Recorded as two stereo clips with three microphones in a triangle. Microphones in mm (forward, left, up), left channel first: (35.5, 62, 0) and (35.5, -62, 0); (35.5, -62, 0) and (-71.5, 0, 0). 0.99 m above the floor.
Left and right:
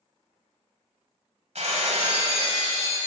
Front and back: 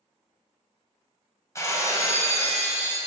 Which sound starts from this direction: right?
Breaking glass, at 1.6 s.